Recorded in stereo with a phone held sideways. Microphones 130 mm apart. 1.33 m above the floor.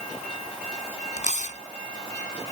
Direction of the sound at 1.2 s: 70° left (ahead or behind).